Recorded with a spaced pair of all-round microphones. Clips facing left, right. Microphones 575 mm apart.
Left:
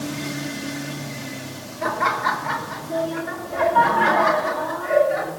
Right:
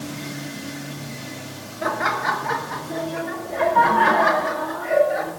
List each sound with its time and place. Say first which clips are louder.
1.8 s laughter: even; 25° left (ahead or behind), 2.5 m; by 5.3 s 35° left (ahead or behind), 6 m